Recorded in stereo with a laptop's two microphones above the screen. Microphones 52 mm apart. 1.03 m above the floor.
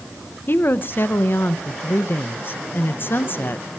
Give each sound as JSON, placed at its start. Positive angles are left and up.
{"t": 0.5, "sound": "a woman speaking", "side_deg": 45, "distance_m": 0.8}